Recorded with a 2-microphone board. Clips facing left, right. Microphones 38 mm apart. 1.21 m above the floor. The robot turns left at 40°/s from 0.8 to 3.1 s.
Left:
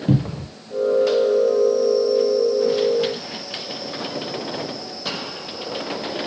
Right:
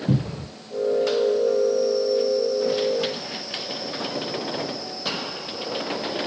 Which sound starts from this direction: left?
A cupboard door, at 0.1 s.